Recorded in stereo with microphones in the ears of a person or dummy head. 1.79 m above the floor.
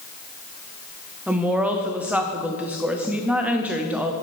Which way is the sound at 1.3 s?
5° right (ahead or behind).